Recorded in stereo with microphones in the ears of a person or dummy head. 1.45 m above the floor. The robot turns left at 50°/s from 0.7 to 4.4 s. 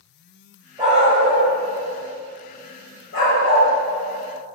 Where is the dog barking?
30° right (ahead or behind), 1.6 m; by 3.7 s 55° left (ahead or behind), 1.6 m.